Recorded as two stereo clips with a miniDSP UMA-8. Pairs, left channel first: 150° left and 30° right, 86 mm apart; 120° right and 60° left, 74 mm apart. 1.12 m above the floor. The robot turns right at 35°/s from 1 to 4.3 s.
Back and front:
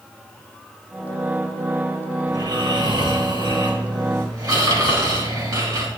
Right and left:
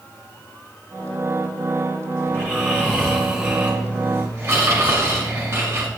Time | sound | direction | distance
2.3 | snoring | 65° right | 4.5 m